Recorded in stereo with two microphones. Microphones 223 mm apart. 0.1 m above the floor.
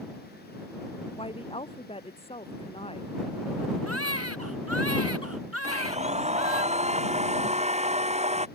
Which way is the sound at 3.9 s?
85° right.